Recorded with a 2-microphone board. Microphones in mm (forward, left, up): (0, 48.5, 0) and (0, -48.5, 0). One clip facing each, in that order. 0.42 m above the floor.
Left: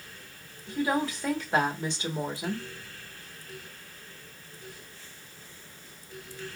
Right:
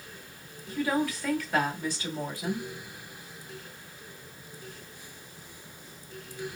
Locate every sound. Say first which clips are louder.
0.7 s a woman speaking: even; 25° left (ahead or behind), 1.3 m